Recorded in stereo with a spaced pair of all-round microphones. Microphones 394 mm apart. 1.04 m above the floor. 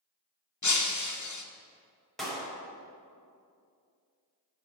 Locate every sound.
0.6 s breaking glass: 45° left (ahead or behind), 0.7 m
2.2 s a clap: centre (ahead or behind), 2 m